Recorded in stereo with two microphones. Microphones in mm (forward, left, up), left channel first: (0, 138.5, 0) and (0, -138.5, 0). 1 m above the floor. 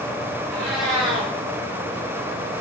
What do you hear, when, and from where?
0.5 s a cat meowing: 45° left (ahead or behind), 5.5 m